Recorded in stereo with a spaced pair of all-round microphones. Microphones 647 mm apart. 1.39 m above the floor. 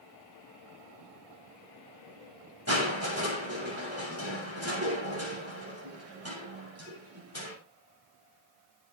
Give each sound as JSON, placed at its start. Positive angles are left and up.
{"t": 2.7, "sound": "crushing", "side_deg": -20, "distance_m": 7.0}